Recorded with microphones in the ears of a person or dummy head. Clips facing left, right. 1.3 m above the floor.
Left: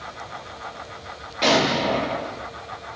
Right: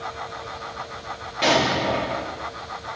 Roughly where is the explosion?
Centre.